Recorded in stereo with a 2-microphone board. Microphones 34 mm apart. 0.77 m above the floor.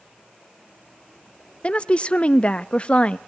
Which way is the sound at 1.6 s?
30° left (ahead or behind).